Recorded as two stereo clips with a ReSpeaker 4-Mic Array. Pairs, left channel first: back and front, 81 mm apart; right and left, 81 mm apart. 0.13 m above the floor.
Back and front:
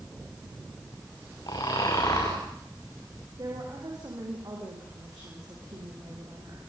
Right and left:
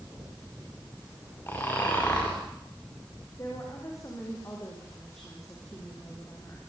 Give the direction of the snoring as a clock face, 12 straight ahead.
5 o'clock.